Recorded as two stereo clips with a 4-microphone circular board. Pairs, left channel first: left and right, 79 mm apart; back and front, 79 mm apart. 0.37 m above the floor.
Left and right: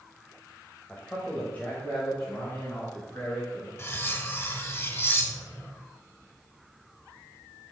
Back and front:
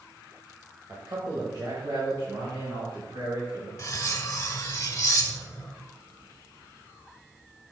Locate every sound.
0.9 s a man speaking: 25° left, 1.4 m
3.8 s cutlery clinking: 140° left, 0.9 m